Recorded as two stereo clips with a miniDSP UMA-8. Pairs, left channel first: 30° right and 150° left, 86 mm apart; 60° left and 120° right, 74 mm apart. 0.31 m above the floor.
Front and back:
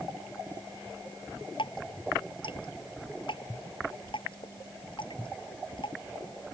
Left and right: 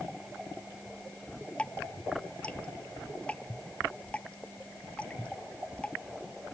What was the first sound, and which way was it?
Dripping, 15° right.